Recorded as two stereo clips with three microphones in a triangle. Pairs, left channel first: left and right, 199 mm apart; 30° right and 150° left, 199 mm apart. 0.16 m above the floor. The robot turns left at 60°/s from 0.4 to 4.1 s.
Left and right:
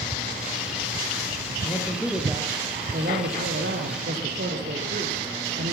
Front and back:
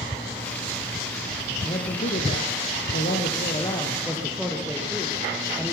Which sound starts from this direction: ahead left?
A man speaking, at 1.6 s.